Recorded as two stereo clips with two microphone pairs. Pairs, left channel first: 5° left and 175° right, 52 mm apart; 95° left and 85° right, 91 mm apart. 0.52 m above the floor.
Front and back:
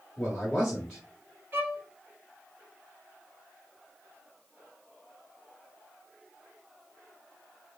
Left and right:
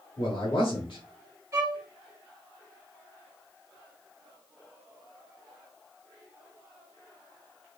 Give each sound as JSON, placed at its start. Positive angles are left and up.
{"t": 0.2, "sound": "a man speaking", "azimuth_deg": 60, "distance_m": 1.6}
{"t": 1.5, "sound": "a violin", "azimuth_deg": -135, "distance_m": 1.1}